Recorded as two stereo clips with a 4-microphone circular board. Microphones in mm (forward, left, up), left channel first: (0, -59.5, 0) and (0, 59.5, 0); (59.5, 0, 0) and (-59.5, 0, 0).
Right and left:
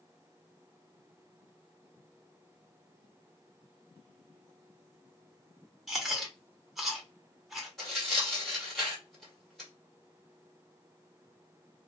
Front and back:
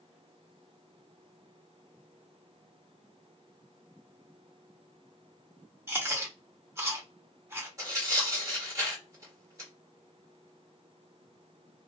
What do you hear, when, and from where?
5.9 s chewing: 175° left, 0.9 m
7.8 s tearing paper: 175° right, 1.4 m